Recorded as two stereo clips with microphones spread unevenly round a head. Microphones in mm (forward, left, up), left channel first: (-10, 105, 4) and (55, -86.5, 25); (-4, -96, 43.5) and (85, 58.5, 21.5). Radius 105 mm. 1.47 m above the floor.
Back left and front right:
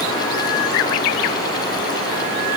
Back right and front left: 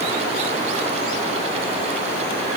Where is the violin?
No violin in this recording.